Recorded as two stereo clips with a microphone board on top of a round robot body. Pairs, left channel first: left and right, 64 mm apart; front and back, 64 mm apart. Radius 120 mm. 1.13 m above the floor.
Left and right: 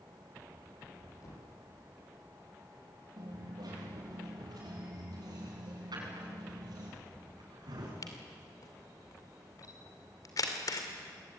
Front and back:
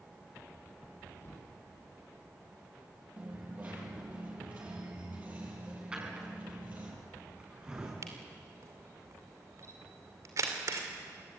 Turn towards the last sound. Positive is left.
turn(degrees=130)